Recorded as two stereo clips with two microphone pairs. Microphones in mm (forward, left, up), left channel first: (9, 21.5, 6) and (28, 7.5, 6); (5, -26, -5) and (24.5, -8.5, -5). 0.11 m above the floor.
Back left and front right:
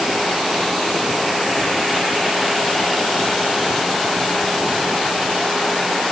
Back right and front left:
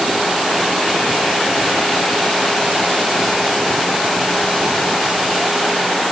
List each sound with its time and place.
Only background noise.